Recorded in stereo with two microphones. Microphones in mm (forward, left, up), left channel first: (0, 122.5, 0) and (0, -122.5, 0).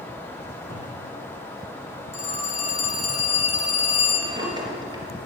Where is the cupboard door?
10° left (ahead or behind), 3 m.